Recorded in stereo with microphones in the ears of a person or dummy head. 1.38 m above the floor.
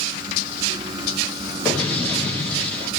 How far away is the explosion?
About 2.5 m.